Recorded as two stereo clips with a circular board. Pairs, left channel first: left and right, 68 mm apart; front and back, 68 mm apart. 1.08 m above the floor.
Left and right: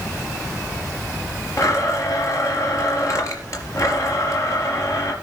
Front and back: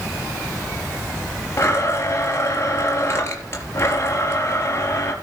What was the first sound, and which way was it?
A blender, 50° left.